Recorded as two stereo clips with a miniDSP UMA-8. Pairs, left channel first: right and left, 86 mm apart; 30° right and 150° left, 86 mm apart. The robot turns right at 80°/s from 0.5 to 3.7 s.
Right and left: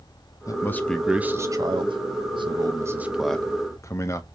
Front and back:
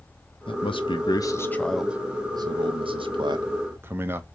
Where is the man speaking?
40° right, 0.9 m; by 4.2 s 145° right, 0.9 m.